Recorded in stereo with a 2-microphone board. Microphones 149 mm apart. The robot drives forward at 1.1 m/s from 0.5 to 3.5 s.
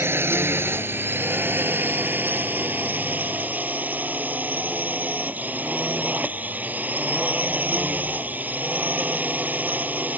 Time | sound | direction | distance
0.0 | a drone | 15° right (ahead or behind) | ?